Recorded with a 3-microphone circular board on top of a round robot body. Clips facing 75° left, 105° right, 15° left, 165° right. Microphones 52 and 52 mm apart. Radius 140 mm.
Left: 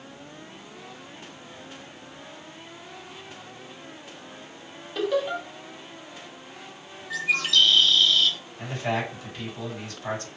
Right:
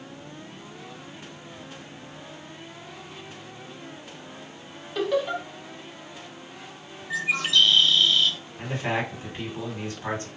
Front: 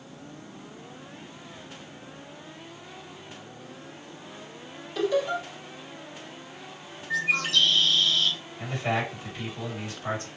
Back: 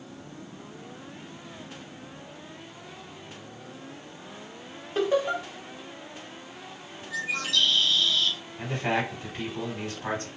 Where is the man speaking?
145° right, 1.9 m.